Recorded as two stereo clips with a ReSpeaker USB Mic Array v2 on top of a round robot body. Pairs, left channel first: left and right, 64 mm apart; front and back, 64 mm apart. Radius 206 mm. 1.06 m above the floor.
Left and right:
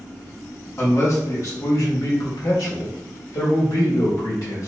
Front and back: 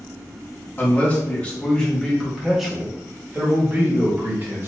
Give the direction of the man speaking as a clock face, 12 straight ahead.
10 o'clock.